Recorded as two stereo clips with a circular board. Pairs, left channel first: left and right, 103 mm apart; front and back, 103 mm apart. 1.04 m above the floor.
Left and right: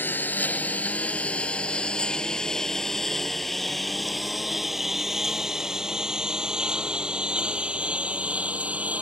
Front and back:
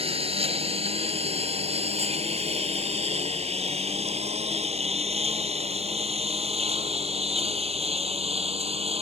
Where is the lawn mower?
160° left; by 9.0 s 165° right.